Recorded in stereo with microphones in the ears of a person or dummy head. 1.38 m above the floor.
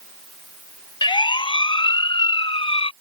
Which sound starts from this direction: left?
A siren, at 1.0 s.